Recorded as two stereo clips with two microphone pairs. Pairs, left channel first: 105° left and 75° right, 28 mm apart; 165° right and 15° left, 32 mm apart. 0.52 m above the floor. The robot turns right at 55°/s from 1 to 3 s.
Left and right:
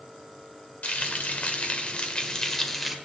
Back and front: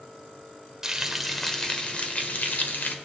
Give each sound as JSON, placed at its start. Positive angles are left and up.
{"t": 0.8, "sound": "frying", "azimuth_deg": 90, "distance_m": 1.3}